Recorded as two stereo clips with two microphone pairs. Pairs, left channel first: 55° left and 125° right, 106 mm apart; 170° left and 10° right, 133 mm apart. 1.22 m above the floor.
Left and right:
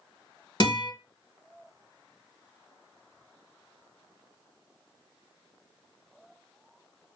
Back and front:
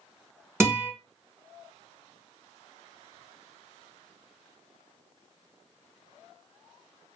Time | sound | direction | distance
0.6 | a guitar | 50° left | 1.4 m